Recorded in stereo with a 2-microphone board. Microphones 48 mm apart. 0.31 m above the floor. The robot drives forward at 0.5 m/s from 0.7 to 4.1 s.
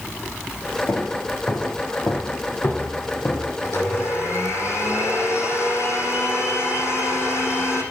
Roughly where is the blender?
Left.